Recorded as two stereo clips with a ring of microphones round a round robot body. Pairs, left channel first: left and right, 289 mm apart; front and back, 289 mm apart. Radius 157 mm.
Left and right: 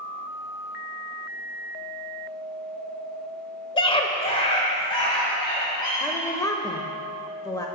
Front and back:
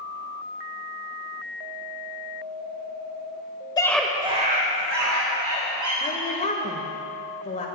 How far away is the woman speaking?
About 0.9 m.